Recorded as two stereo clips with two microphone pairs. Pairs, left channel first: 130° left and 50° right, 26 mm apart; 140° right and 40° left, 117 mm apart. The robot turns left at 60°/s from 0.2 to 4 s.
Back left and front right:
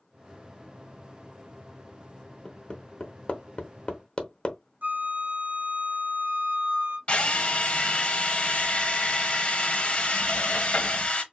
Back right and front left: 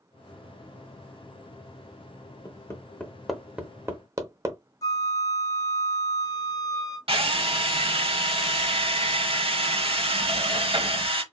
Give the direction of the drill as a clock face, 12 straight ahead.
9 o'clock.